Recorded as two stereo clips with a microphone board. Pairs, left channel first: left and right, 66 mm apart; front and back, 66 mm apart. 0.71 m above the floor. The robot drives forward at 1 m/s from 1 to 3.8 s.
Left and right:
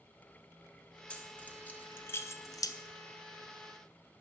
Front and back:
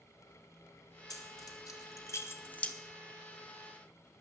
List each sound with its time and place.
1.1 s keys jangling: 20° left, 1.9 m; by 2.8 s 75° left, 0.7 m